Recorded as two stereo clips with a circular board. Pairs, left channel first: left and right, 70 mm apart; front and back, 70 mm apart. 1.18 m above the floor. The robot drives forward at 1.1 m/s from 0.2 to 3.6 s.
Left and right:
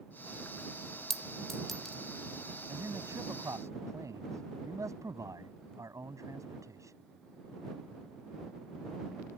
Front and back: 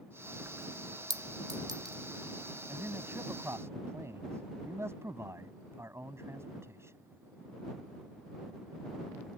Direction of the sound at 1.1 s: 175° left.